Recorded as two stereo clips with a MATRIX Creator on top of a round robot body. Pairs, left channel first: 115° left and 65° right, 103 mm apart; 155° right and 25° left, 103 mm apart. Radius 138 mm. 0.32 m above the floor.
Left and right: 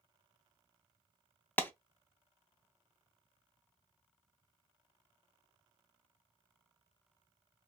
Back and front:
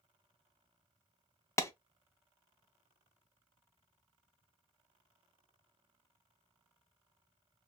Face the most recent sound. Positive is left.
turn(degrees=170)